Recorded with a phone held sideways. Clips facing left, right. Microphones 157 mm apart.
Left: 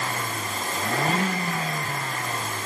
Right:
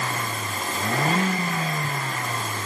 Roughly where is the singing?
I don't hear singing.